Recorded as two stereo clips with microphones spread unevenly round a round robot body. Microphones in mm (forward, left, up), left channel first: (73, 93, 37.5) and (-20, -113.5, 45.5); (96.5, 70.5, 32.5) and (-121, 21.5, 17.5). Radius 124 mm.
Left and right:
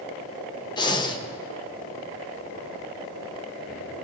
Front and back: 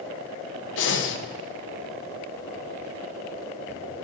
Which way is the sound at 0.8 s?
Straight ahead.